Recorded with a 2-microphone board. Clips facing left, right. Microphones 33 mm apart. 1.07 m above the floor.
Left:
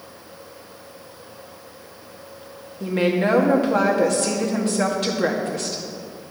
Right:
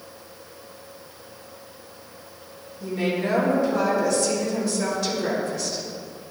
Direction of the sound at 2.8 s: 70° left (ahead or behind).